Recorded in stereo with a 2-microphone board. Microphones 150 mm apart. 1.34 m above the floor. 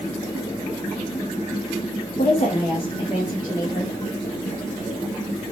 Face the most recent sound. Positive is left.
turn(degrees=25)  # may be behind; listen again after turning